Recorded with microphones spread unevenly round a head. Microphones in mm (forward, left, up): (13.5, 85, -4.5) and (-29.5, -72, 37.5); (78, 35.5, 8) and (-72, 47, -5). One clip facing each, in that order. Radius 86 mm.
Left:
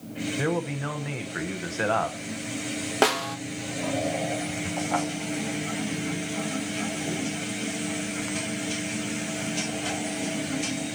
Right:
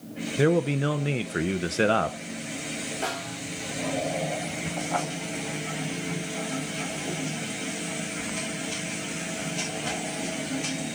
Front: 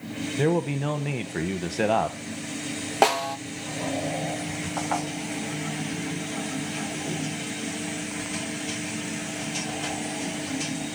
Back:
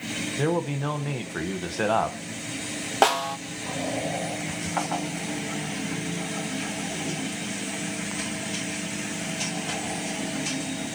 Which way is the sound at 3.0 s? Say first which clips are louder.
Left 12 dB, even; 75° left.